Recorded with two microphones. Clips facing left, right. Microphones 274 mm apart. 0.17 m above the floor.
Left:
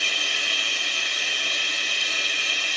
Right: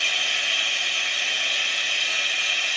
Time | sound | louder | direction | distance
0.0 | running water | left 2 dB | 45° left (ahead or behind) | 0.7 m